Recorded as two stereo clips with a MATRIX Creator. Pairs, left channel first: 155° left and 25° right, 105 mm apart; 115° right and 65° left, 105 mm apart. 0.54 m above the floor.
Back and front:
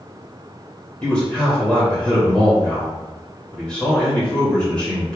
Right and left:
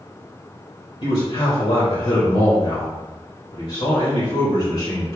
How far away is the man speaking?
About 2.5 m.